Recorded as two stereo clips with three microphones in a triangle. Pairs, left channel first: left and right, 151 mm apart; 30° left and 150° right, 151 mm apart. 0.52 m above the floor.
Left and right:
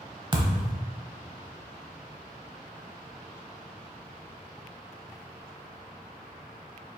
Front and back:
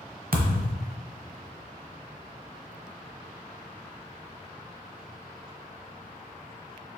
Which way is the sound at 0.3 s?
150° right.